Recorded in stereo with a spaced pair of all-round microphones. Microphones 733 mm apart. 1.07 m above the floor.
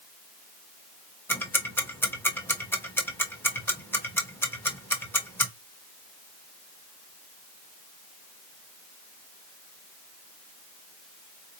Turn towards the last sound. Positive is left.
turn(degrees=5)  # may be behind; listen again after turning